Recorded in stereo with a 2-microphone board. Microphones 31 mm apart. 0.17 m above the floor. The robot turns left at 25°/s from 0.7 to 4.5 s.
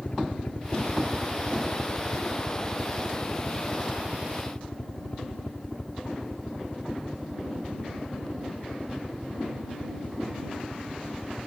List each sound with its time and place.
0.0 s a helicopter: 40° left (ahead or behind); by 11.5 s 20° left (ahead or behind)